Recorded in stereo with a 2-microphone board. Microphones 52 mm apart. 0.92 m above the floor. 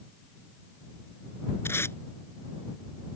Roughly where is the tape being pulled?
Left.